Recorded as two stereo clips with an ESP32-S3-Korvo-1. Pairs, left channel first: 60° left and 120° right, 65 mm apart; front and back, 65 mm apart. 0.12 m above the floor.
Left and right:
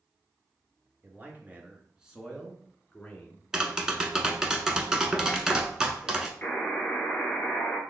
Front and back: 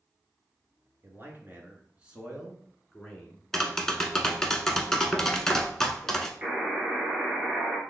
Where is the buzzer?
115° left, 1.8 m.